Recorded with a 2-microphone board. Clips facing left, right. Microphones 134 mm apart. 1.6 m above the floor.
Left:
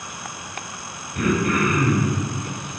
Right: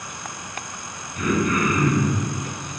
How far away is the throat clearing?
About 4 m.